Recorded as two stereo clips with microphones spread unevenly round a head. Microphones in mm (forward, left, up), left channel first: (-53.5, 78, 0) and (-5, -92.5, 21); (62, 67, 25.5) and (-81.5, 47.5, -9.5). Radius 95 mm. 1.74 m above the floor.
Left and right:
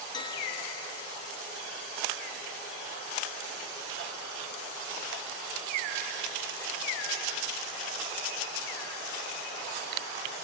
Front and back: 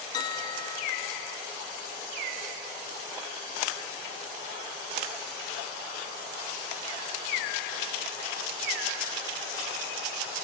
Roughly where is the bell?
Ahead left.